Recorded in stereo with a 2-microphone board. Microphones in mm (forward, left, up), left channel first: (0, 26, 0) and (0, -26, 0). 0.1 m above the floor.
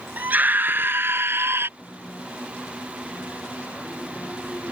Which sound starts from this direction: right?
A scream, at 0.2 s.